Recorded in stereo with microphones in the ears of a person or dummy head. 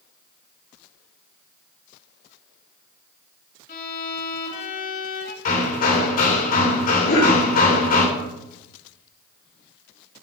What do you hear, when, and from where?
3.7 s a violin: 50° left (ahead or behind), 3.5 m
5.5 s hammering: 50° left (ahead or behind), 4 m
7.0 s a cough: 55° left (ahead or behind), 4.5 m